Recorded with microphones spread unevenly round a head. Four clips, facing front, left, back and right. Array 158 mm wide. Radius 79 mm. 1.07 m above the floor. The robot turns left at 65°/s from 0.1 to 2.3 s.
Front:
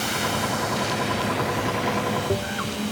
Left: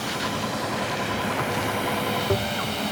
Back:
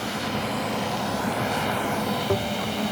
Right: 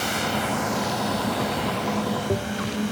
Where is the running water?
70° right, 2.0 m; by 2.9 s 145° left, 2.0 m.